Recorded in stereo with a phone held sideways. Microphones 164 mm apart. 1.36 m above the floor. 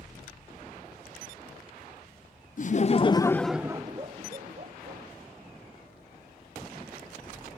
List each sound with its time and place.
2.6 s laughter: 55° left (ahead or behind), 0.7 m; by 5.0 s 55° right (ahead or behind), 1.1 m